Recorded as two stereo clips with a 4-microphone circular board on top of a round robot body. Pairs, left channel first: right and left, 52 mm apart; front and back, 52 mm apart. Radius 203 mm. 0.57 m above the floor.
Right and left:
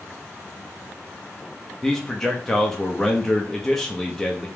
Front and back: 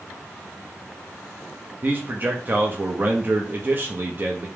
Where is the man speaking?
165° right, 1.0 m.